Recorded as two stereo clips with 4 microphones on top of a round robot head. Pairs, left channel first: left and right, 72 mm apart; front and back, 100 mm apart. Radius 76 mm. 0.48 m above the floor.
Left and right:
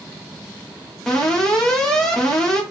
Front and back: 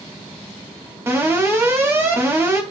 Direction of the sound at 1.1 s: 170° left.